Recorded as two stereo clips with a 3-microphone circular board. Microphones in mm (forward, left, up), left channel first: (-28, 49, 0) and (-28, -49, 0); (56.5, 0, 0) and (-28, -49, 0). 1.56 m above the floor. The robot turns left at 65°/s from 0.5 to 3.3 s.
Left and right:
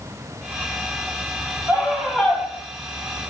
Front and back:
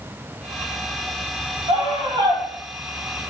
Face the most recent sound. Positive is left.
turn(degrees=100)